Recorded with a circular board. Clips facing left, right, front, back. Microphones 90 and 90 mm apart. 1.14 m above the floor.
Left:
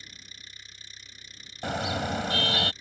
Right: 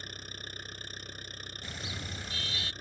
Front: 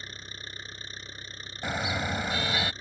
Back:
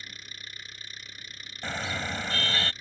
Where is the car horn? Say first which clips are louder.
Left 15 dB, front 2 dB; 80° left.